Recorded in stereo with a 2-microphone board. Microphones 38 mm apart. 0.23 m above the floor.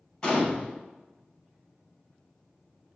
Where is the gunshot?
25° left (ahead or behind), 0.8 m.